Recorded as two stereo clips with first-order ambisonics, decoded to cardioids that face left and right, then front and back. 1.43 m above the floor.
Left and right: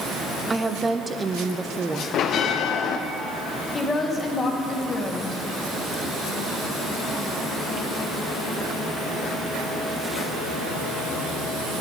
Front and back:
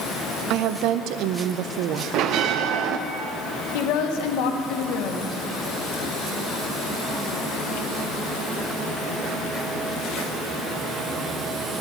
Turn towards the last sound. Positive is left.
turn(degrees=15)